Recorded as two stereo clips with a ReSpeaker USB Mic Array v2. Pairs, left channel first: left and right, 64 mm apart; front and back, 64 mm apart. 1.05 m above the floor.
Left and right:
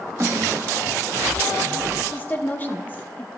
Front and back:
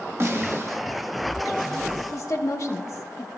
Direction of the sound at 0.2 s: 130° right.